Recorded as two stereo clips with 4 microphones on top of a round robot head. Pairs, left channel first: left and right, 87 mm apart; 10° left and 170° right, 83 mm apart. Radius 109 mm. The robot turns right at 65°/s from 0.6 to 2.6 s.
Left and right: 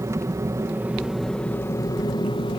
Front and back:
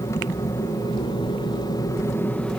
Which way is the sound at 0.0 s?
40° right.